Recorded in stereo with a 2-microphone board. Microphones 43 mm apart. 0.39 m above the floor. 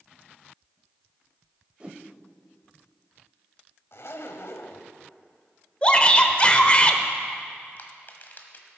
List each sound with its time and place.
1.8 s a whoosh: 30° right (ahead or behind), 0.7 m
3.9 s a zipper: 70° left (ahead or behind), 0.8 m
5.8 s a shout: 25° left (ahead or behind), 1.0 m
7.8 s crushing: 45° left (ahead or behind), 1.3 m